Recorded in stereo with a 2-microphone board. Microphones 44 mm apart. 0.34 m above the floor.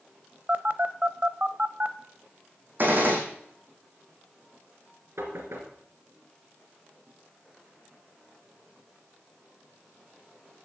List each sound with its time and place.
0.5 s a phone buzzing: 35° right (ahead or behind), 0.6 m
2.8 s a gunshot: 45° right (ahead or behind), 3 m
5.2 s knocking: 75° right (ahead or behind), 3 m